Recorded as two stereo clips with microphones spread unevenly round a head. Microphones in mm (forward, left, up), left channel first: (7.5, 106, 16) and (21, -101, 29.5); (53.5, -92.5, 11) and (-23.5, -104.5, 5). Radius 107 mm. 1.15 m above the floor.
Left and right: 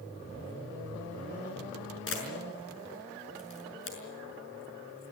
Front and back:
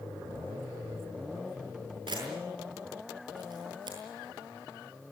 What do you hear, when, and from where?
2.1 s a camera shutter: 130° left, 6 m